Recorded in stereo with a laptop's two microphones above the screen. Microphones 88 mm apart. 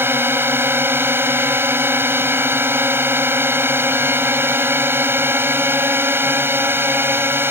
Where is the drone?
25° right (ahead or behind).